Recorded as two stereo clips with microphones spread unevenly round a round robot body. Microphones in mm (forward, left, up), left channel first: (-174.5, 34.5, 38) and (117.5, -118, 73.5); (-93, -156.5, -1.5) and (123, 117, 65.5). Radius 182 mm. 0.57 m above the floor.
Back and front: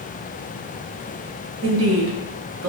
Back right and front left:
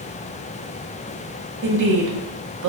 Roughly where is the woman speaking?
Ahead.